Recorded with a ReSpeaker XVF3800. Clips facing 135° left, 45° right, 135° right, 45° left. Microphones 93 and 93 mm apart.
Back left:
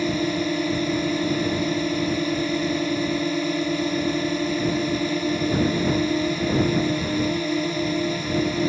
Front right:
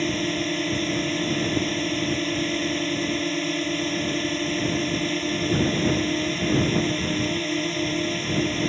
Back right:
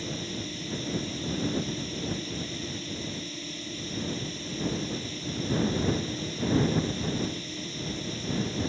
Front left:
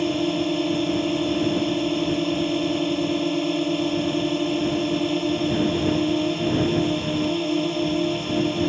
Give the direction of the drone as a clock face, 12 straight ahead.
10 o'clock.